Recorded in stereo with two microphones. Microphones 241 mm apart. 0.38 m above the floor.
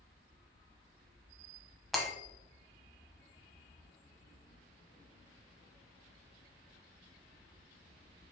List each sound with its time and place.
1.9 s breaking glass: centre (ahead or behind), 0.9 m